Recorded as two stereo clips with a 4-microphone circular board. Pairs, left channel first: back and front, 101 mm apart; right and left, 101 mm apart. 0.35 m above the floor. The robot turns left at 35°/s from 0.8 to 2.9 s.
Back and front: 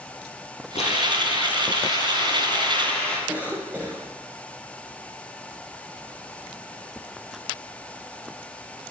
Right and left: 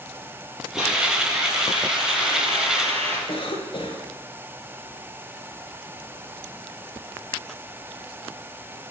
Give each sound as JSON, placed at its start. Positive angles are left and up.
{"t": 0.8, "sound": "a hiss", "azimuth_deg": 175, "distance_m": 4.5}
{"t": 3.3, "sound": "a cough", "azimuth_deg": -70, "distance_m": 2.0}